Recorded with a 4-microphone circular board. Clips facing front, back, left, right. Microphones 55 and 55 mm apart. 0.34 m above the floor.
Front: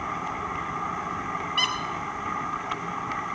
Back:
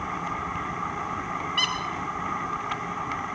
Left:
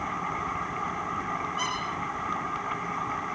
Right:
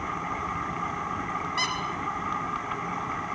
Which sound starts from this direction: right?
A squeak, at 1.6 s.